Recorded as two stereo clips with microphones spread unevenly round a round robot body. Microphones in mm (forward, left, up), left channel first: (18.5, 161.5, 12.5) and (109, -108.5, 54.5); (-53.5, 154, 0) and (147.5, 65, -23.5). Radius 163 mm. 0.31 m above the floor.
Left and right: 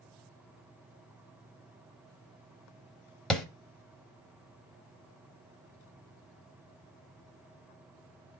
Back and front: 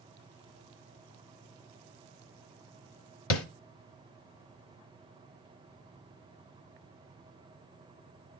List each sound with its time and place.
3.3 s tapping: 170° right, 0.9 m